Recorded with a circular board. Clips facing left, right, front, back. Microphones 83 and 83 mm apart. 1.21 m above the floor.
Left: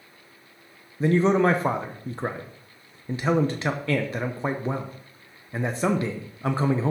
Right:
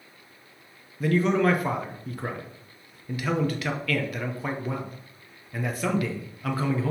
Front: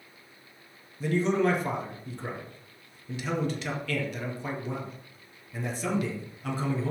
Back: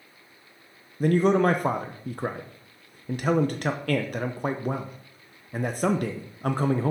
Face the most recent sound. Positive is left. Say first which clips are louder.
# left 3 dB, back 5 dB
turn(degrees=150)